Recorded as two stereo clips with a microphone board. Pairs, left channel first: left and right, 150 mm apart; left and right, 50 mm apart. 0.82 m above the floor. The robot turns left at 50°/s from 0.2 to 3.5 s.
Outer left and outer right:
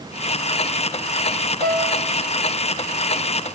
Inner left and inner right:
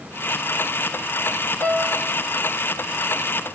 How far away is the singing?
No singing in this recording.